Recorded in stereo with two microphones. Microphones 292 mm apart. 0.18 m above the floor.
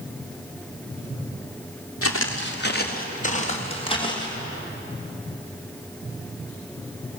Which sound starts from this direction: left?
Footsteps, at 2.0 s.